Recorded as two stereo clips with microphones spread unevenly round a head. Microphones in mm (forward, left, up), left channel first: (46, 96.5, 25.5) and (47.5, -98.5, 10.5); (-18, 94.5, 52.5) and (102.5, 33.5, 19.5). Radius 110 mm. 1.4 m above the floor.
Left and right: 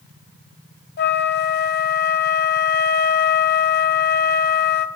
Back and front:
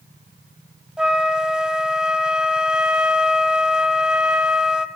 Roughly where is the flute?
Ahead left.